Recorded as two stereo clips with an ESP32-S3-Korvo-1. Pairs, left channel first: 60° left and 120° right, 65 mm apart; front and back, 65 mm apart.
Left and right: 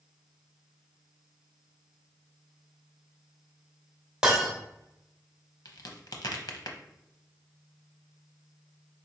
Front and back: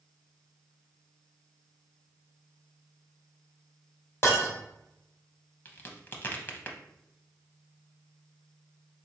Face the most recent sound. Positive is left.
turn(degrees=55)